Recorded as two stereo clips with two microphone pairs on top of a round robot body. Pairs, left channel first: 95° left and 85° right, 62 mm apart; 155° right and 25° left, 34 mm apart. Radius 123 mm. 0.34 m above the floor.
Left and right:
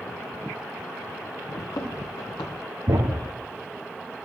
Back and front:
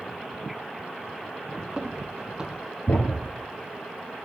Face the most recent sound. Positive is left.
turn(degrees=-120)